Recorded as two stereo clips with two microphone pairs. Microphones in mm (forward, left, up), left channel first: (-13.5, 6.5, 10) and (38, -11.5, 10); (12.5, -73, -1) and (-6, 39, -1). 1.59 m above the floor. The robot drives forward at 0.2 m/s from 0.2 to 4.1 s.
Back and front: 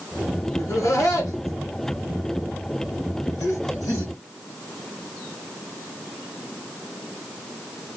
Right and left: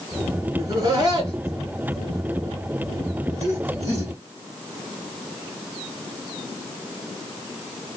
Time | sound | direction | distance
0.6 | laughter | 145° left | 1.9 m